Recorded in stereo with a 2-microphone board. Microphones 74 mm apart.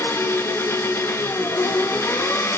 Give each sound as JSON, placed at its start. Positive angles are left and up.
{"t": 0.0, "sound": "an engine running", "side_deg": 35, "distance_m": 1.7}